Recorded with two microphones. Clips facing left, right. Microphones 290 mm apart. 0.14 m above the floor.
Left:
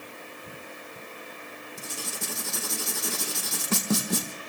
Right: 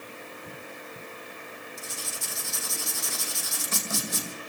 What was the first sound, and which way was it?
Writing, 80° left.